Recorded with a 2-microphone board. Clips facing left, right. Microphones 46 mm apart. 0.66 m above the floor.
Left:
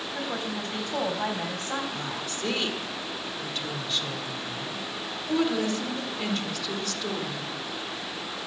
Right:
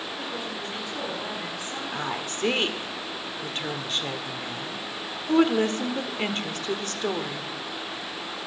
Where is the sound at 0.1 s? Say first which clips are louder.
Left 2 dB; 65° left (ahead or behind), 4 m.